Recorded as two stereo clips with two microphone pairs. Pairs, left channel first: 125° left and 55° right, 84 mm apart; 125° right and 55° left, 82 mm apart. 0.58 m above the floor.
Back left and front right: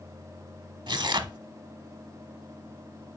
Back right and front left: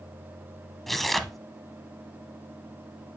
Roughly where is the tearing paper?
Ahead right.